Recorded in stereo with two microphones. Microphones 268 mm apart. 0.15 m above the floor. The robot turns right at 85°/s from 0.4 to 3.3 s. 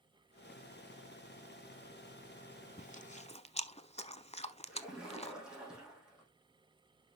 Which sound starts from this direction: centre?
A splash, at 4.7 s.